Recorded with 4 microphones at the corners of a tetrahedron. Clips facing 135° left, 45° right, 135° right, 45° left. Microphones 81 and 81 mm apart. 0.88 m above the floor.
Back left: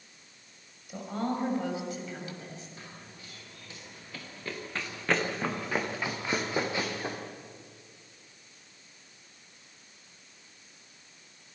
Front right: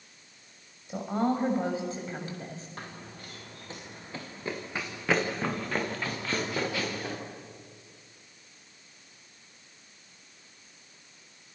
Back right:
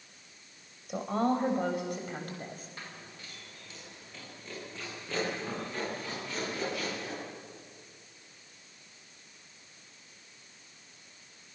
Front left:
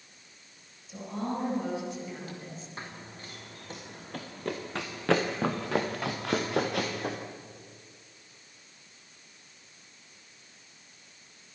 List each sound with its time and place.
0.9 s a woman speaking: 110° right, 5.5 m; by 2.7 s 95° right, 6 m
2.8 s running footsteps: 15° right, 4 m; by 7.2 s 75° left, 5 m